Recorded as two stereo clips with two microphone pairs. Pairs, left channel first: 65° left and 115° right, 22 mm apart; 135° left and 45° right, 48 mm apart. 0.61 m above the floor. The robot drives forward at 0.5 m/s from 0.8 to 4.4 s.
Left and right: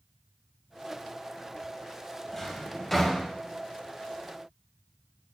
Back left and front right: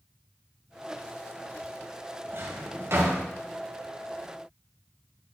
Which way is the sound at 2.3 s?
15° right.